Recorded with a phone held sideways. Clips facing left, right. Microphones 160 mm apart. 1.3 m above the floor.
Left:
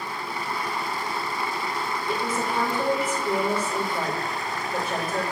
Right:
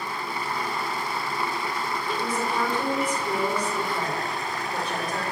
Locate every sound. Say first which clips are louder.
2.1 s a woman speaking: left 1 dB; 10° left (ahead or behind), 3.5 m